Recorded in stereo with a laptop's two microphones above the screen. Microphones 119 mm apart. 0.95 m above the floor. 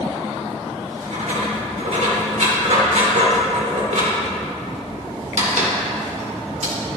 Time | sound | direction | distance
0.8 | writing | 80° right | 2 m